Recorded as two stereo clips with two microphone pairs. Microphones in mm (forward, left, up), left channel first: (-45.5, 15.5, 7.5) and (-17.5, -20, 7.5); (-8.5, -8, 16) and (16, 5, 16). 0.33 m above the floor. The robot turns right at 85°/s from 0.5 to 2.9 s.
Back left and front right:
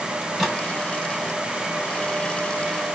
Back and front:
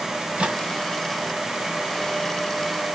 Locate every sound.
0.2 s a microwave: 45° left, 1.7 m; by 0.6 s 60° left, 1.7 m